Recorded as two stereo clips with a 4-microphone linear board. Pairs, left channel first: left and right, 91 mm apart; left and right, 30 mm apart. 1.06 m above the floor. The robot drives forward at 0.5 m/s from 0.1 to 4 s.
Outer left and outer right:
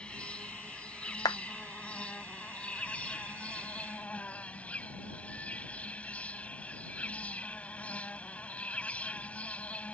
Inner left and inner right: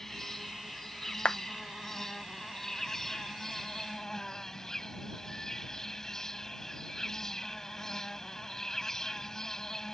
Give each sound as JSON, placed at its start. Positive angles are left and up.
{"t": 0.0, "sound": "an insect", "side_deg": 15}
{"t": 1.2, "sound": "a clap", "side_deg": 40}